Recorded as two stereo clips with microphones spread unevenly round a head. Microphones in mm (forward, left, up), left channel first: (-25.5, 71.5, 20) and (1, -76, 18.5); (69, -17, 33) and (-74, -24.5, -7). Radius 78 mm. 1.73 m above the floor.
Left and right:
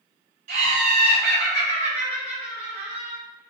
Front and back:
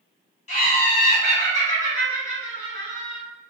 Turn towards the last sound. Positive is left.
turn(degrees=-40)